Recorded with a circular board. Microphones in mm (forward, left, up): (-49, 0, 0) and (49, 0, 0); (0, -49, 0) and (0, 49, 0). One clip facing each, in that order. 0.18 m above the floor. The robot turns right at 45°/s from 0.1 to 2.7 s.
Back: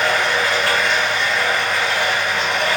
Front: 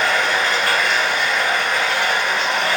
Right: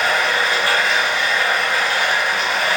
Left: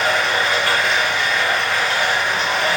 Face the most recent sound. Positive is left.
turn(degrees=5)